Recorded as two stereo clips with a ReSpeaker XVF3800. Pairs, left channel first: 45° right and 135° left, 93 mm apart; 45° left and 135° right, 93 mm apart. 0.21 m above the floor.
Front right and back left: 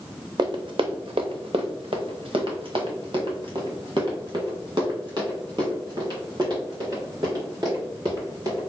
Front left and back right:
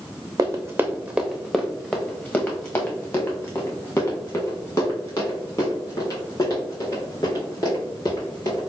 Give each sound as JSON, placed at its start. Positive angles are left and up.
{"t": 0.4, "sound": "running footsteps", "azimuth_deg": 175, "distance_m": 0.7}